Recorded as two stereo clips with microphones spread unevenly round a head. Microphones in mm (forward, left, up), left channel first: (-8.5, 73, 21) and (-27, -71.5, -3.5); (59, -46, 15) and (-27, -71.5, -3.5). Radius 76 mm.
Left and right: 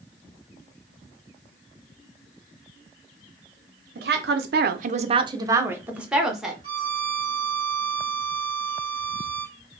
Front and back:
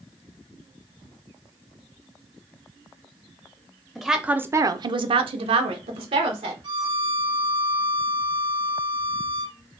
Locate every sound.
4.0 s a woman speaking: 70° right, 0.7 m; by 6.5 s 175° left, 1.3 m
6.6 s a violin: 155° right, 1.4 m